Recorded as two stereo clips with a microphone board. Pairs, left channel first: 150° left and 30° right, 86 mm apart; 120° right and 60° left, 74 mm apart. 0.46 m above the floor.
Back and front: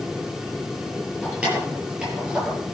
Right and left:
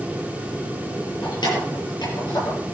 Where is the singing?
I don't hear singing.